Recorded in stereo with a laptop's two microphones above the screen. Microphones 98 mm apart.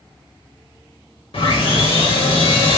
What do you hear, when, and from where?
1.3 s sawing: 65° left (ahead or behind), 2 m